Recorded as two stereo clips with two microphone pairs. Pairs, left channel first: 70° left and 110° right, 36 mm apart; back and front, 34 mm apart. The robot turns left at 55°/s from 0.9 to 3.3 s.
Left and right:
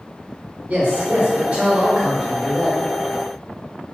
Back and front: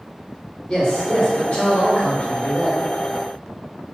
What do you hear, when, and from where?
0.7 s a man speaking: 100° right, 0.9 m; by 2.8 s 155° left, 0.9 m